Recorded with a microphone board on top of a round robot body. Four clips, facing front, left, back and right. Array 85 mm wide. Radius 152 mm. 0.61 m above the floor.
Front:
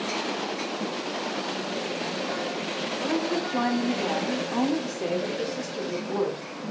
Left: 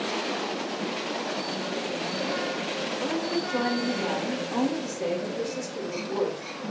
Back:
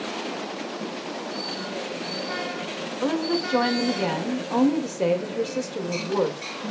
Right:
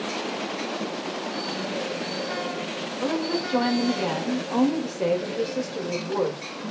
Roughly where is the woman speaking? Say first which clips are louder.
Right 4 dB, back 3 dB; behind.